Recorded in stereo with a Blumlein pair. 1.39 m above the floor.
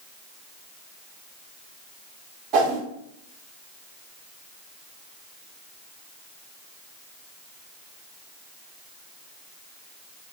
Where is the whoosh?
35° right, 1.2 m.